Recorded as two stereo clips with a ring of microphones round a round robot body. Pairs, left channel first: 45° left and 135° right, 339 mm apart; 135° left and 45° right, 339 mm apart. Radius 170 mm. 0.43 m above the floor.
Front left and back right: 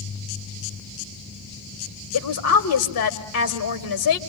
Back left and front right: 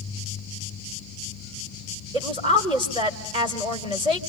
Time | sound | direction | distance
2.1 | a woman speaking | 25° left | 1.5 m